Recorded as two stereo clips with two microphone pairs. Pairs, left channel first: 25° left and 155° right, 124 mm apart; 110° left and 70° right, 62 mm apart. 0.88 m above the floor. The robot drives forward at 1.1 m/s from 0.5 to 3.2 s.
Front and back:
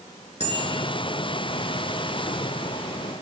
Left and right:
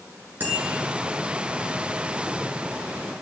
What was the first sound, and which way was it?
A bicycle bell, 10° right.